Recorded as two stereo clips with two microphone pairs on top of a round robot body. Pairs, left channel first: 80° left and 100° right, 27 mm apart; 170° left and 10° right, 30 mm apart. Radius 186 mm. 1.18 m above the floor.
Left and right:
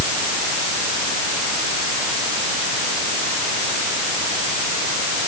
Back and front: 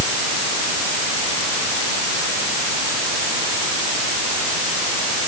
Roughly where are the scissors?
I don't hear scissors.